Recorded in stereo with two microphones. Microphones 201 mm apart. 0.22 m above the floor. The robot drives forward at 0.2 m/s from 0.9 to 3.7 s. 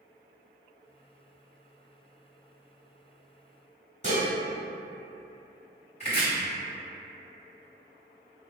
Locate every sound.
4.0 s dishes clattering: 35° right (ahead or behind), 1.0 m
6.0 s chopping: 35° left (ahead or behind), 1.9 m